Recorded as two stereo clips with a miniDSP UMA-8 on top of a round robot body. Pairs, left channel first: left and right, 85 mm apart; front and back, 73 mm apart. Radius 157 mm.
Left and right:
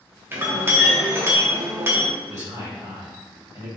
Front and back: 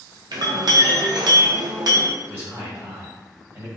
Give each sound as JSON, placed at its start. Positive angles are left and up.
{"t": 0.3, "sound": "a clink", "azimuth_deg": -155, "distance_m": 0.5}
{"t": 2.3, "sound": "a man speaking", "azimuth_deg": -130, "distance_m": 1.5}